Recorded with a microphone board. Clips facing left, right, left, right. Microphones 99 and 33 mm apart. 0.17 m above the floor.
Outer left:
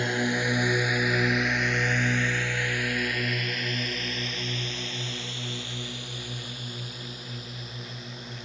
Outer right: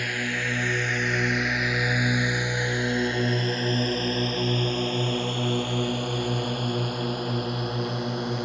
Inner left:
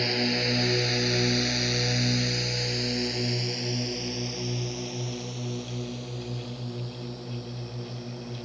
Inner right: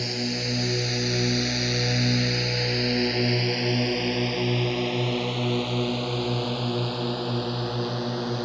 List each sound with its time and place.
0.0 s a drone: 25° left (ahead or behind); by 8.4 s 65° right (ahead or behind)